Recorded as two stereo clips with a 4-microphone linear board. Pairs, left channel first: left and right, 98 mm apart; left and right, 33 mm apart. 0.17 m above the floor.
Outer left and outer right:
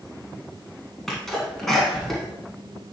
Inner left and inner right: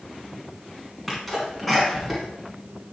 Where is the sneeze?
5° left (ahead or behind), 1.5 m.